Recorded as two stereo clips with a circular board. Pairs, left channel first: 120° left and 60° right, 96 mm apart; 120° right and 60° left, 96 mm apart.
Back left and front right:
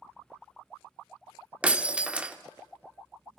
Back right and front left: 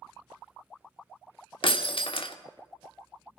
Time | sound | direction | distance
1.6 | breaking glass | 135° right | 0.9 m